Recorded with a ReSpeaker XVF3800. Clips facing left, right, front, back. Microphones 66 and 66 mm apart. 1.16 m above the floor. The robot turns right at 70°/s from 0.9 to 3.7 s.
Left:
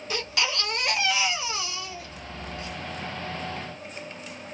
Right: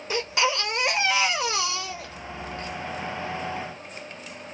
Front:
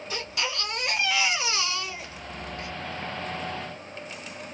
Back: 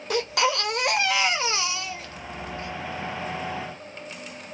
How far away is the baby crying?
About 0.7 m.